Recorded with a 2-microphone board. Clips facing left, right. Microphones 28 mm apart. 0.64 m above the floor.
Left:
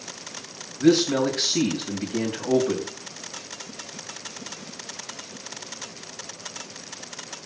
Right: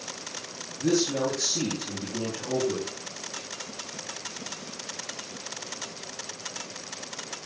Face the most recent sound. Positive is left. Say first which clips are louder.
# left 6 dB
turn(degrees=60)  # may be behind; listen again after turning